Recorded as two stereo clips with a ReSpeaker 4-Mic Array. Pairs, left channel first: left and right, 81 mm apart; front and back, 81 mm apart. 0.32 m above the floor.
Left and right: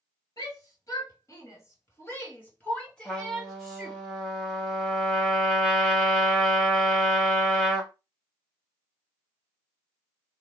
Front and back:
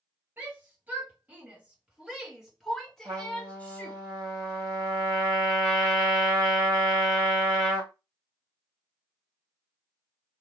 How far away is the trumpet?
About 2 m.